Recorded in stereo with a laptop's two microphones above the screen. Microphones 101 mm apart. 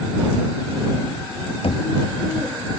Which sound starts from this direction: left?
Knocking, at 1.6 s.